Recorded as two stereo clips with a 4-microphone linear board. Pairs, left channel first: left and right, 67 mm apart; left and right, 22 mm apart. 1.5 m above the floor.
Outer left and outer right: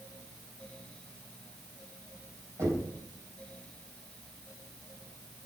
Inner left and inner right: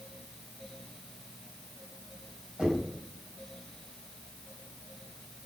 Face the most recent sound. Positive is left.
turn(degrees=-45)  # may be behind; listen again after turning